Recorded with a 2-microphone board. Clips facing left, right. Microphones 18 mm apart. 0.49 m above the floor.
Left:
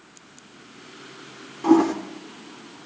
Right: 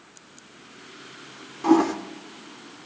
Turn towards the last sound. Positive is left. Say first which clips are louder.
# left 2 dB
turn(degrees=-10)  # may be behind; listen again after turning